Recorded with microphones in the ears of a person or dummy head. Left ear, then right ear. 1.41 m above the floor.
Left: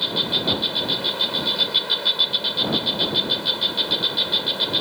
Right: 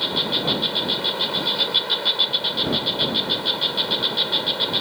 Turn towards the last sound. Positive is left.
turn(degrees=-10)  # may be behind; listen again after turning